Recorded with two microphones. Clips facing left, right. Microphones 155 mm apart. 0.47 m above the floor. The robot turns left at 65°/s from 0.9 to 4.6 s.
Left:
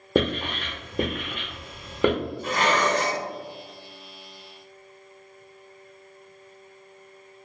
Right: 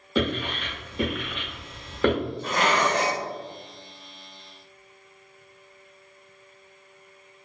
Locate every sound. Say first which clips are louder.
0.1 s writing: left 2 dB; 55° left (ahead or behind), 0.7 m; by 2.1 s 10° left (ahead or behind), 0.7 m
2.4 s dishes clattering: left 1 dB; 10° left, 1.1 m; by 3.2 s 40° right, 1.1 m